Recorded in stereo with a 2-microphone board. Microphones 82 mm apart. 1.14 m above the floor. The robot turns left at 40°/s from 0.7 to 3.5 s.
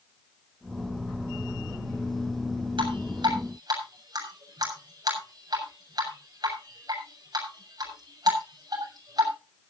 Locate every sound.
2.8 s dripping: 80° right, 7 m; by 9.3 s 50° right (ahead or behind), 7 m